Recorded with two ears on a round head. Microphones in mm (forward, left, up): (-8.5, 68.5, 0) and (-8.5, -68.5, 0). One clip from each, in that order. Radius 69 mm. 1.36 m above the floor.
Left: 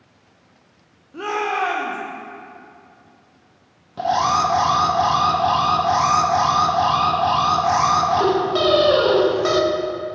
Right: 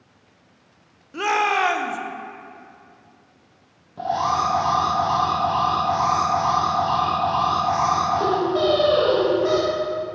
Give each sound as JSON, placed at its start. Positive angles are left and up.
{"t": 1.1, "sound": "a shout", "side_deg": -55, "distance_m": 0.5}
{"t": 4.0, "sound": "an alarm", "side_deg": 50, "distance_m": 0.5}